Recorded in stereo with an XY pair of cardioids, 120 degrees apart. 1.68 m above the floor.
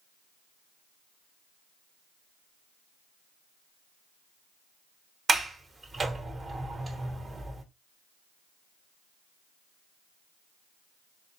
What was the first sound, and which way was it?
A sliding door, 25° right.